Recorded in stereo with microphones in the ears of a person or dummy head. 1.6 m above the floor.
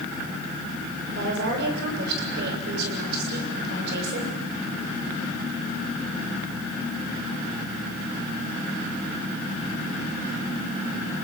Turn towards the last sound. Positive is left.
turn(degrees=-60)  # may be behind; listen again after turning